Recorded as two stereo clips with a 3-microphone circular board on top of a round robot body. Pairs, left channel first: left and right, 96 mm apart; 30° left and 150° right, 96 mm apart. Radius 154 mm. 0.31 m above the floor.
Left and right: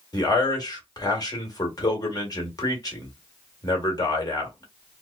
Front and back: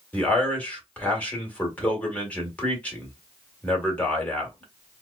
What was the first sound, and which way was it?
A man speaking, 100° left.